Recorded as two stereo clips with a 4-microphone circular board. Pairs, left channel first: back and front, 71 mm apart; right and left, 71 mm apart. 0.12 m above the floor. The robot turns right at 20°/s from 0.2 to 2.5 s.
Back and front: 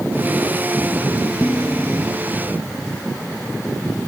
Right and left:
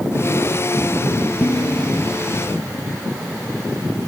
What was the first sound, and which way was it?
Dishes clattering, 110° right.